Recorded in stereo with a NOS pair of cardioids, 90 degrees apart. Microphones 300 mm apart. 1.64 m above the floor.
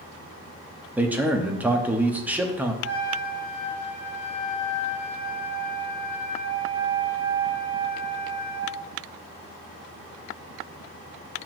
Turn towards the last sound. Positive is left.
turn(degrees=35)